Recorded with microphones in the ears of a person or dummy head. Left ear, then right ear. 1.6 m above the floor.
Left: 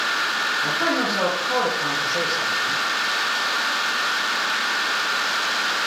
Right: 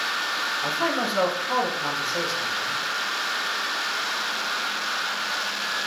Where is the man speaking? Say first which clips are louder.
Left 3 dB; 25° right (ahead or behind), 6.5 m.